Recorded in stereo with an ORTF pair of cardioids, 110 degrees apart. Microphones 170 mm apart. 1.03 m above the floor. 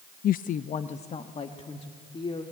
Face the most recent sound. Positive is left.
turn(degrees=30)